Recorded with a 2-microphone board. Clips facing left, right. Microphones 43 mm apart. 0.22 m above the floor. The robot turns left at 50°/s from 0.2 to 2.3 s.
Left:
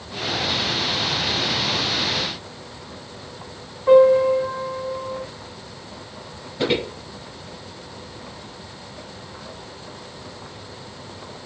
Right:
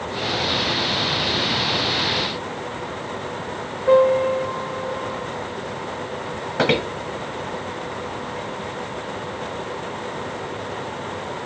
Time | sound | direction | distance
3.9 | a piano | 35° left (ahead or behind) | 1.7 m
6.6 | footsteps | 75° right (ahead or behind) | 0.8 m